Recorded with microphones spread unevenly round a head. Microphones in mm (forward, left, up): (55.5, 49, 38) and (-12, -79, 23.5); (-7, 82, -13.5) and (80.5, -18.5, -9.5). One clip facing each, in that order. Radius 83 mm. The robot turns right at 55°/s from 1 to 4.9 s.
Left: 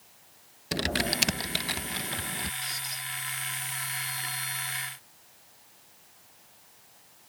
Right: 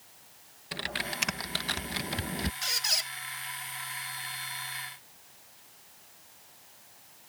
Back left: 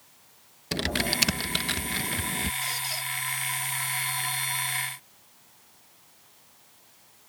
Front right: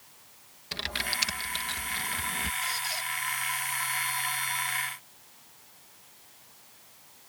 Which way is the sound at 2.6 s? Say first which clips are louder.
Right 3 dB, even; 165° right.